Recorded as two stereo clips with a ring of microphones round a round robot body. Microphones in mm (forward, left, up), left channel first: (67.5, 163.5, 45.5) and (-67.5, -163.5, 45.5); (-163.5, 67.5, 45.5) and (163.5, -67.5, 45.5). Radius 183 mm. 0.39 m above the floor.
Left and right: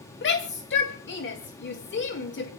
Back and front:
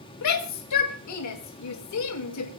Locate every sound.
0.2 s a shout: 125° left, 2.5 m